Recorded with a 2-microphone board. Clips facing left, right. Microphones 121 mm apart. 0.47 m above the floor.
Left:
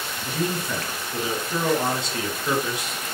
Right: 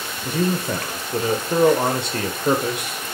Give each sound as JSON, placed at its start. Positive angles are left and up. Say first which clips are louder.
{"t": 0.2, "sound": "a man speaking", "louder": "right 5 dB", "side_deg": -60, "distance_m": 1.2}